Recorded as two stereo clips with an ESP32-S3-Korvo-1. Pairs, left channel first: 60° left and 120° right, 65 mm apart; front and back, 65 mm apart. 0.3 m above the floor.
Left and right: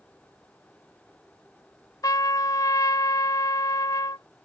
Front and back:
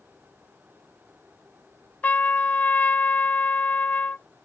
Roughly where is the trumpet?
Ahead left.